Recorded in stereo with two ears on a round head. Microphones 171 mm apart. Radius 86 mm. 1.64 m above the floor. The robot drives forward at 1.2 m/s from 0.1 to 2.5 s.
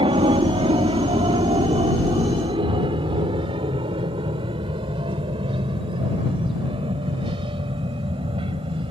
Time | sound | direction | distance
0.0 | an aircraft | 30° right (ahead or behind) | ?